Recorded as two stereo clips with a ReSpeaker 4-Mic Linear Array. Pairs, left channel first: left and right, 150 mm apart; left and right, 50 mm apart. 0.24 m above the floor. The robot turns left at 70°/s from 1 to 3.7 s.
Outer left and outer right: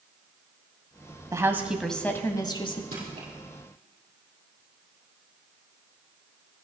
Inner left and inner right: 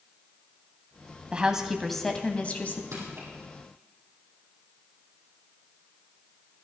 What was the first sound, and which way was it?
A woman speaking, 145° right.